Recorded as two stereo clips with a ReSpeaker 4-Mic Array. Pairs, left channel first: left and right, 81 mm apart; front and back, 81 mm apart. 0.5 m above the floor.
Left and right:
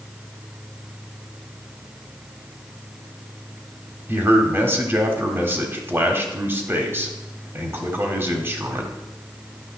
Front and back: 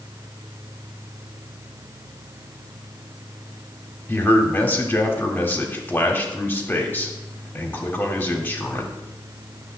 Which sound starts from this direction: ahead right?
A man speaking, at 4.1 s.